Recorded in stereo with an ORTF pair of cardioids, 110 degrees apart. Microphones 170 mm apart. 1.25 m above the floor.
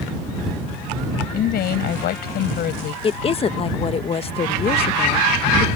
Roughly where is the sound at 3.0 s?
Ahead left.